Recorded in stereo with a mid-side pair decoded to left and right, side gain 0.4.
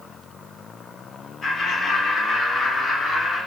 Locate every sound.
1.4 s laughter: 45° left, 1.8 m; by 3.4 s 60° left, 2.5 m